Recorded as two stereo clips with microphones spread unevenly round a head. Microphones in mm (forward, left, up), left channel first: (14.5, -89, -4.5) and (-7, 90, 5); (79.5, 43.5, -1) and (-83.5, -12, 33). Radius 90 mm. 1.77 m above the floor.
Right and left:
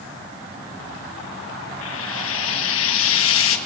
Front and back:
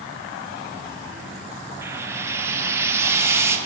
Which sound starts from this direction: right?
Frying, at 1.8 s.